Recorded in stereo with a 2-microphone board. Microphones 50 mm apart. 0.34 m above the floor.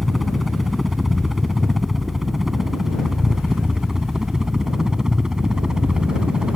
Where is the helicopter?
Centre (ahead or behind); by 6.6 s 15° right (ahead or behind).